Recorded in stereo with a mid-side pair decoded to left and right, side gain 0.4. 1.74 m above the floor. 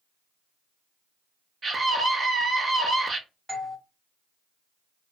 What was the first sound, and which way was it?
A scream, 55° right.